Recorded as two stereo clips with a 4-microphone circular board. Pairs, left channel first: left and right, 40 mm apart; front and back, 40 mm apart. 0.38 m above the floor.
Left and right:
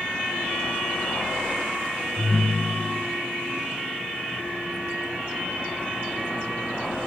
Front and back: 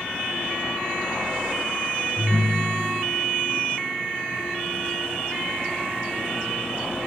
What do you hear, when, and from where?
2.2 s a ringtone: 50° left, 3.5 m